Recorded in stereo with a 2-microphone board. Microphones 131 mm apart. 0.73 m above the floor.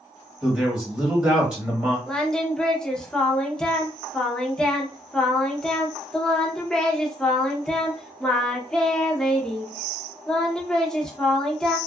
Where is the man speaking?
5° right (ahead or behind), 1.6 m.